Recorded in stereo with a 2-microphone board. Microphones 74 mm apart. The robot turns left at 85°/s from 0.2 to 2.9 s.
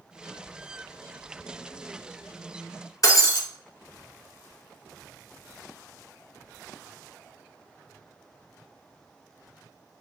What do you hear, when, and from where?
3.0 s breaking glass: 50° left (ahead or behind), 1.2 m